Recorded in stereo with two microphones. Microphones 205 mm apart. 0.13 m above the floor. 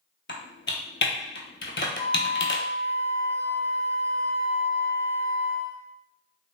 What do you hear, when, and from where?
0.3 s typing on a keyboard: 65° left (ahead or behind), 0.6 m
2.0 s a flute: 5° left (ahead or behind), 1.2 m